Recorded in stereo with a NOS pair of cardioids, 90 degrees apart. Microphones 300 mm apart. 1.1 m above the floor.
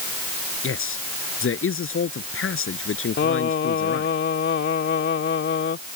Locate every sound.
0.6 s a man speaking: 45° left
3.2 s singing: 40° left